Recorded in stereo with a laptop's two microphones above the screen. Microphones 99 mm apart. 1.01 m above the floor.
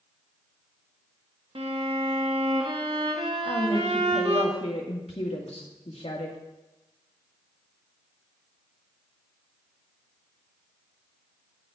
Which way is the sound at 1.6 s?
70° right (ahead or behind).